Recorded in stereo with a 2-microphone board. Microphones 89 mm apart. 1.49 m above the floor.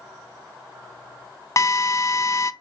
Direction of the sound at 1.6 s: 40° left (ahead or behind).